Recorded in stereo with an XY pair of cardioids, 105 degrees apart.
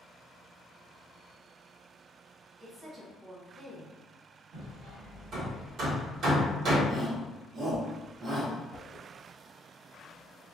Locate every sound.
2.6 s a woman speaking: 45° right, 1.5 m
4.5 s hammering: 65° right, 1.3 m
6.9 s a shout: 65° right, 1.0 m
8.7 s a whoosh: 40° left, 0.8 m